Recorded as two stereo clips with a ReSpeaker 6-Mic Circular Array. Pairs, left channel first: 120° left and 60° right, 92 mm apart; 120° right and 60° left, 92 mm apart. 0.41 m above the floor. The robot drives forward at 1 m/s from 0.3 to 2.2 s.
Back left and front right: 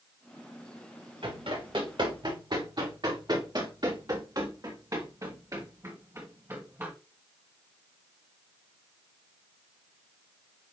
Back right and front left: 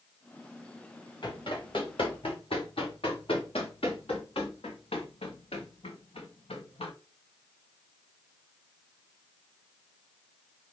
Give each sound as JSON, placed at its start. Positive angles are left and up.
{"t": 1.2, "sound": "running footsteps", "azimuth_deg": -85, "distance_m": 5.5}